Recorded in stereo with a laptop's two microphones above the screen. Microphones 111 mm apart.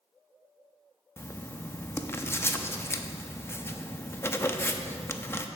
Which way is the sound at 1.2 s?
25° left (ahead or behind).